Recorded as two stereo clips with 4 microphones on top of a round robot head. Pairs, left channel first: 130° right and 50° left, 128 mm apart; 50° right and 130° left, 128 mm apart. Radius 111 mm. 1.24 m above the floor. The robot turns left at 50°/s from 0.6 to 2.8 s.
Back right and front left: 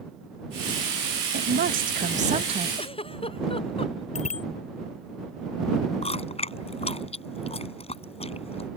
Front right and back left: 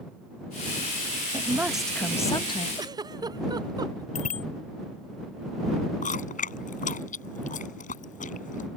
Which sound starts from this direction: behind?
A giggle, at 2.8 s.